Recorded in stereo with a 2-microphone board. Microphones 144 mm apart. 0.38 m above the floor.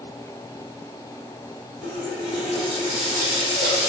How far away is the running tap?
About 1.5 m.